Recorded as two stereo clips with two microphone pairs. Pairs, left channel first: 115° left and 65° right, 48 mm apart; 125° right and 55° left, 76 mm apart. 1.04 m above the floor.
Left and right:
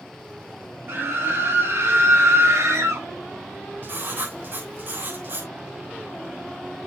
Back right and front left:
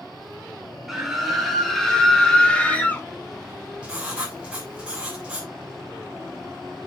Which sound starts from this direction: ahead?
Writing, at 3.8 s.